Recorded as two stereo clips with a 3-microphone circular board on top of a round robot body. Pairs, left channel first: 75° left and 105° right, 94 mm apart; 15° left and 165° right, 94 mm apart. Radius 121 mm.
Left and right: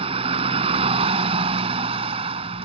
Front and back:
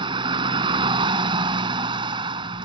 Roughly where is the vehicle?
Behind right.